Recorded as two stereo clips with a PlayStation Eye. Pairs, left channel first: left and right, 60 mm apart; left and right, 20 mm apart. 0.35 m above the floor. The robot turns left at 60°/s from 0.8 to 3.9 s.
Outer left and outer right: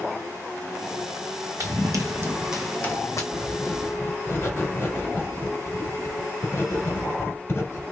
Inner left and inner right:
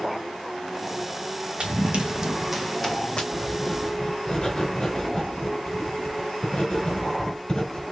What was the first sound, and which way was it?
Running footsteps, 65° right (ahead or behind).